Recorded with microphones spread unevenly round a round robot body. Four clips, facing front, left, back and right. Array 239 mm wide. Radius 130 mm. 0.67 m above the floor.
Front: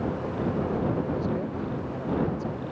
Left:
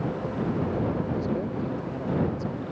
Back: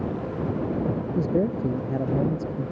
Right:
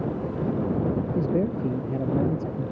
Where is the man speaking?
140° right; by 2.7 s 135° right.